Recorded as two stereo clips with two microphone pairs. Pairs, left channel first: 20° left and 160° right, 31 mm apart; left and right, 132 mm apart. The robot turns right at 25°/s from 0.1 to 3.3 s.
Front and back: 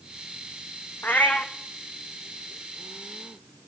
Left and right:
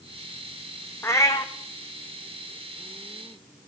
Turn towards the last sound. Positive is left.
turn(degrees=75)